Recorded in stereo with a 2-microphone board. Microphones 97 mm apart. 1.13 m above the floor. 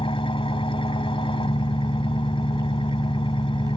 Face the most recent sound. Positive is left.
turn(degrees=70)  # may be behind; listen again after turning